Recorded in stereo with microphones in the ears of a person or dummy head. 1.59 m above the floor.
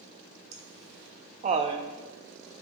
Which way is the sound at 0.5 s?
70° right (ahead or behind).